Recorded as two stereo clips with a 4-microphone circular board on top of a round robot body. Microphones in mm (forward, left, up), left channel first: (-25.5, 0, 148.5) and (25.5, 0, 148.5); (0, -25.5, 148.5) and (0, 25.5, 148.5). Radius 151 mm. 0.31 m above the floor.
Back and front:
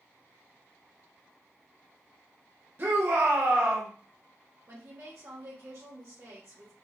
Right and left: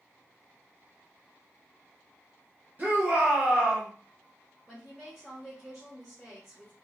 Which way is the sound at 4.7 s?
20° left.